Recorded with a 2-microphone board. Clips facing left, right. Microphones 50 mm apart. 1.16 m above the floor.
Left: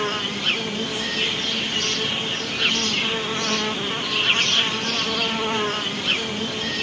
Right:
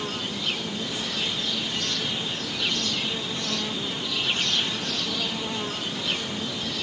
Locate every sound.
0.0 s an insect: 55° left (ahead or behind)